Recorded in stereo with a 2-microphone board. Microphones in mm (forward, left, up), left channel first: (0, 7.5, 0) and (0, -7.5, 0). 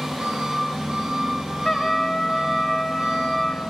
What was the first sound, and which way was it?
An engine running, 85° right.